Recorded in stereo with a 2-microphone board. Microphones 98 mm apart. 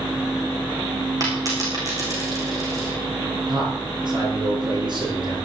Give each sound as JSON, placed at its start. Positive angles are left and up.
{"t": 1.2, "sound": "a dropped coin", "side_deg": -35, "distance_m": 6.0}
{"t": 3.5, "sound": "a man speaking", "side_deg": -50, "distance_m": 10.0}